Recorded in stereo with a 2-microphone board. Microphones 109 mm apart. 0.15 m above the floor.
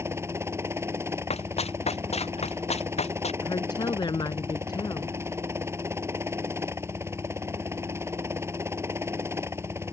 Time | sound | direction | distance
0.0 | a helicopter | 25° right (ahead or behind) | ?
1.3 | running footsteps | 75° left (ahead or behind) | ?
3.4 | a woman speaking | 45° left (ahead or behind) | ?